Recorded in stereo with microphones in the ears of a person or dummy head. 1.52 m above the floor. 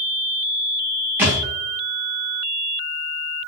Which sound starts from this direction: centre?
A thud, at 1.2 s.